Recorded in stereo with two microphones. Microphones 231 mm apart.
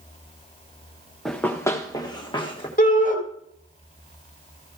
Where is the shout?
35° left (ahead or behind), 1.9 m.